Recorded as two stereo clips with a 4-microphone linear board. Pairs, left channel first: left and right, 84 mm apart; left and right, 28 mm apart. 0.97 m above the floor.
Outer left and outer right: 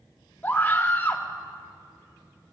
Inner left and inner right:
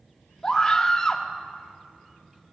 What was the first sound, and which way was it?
A scream, 20° left (ahead or behind).